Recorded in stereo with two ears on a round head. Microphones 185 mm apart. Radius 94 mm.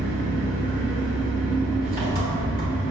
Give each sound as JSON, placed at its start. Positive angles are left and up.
{"t": 0.0, "sound": "an engine running", "side_deg": -50, "distance_m": 1.4}